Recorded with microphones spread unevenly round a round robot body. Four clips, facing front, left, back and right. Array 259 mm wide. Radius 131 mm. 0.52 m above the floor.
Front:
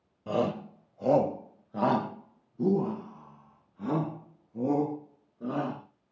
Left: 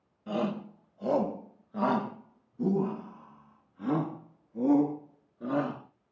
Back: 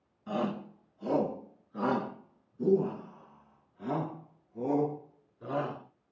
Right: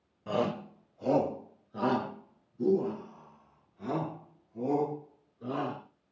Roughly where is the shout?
Ahead.